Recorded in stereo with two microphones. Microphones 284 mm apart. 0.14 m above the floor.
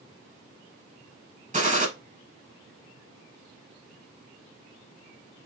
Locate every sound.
1.5 s a gunshot: 25° right (ahead or behind), 0.6 m